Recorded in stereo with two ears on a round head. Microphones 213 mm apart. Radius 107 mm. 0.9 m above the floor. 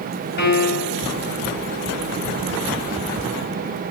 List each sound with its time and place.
0.4 s a piano: 45° left (ahead or behind), 4 m